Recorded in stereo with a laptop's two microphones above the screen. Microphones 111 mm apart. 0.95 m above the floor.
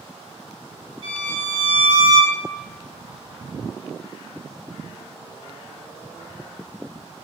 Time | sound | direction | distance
1.0 | a violin | 40° right (ahead or behind) | 1.9 m